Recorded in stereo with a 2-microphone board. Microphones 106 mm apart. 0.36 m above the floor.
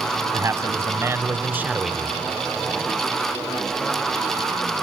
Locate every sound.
0.3 s a man speaking: 30° right (ahead or behind), 2.5 m; by 2.1 s 5° left (ahead or behind), 1.0 m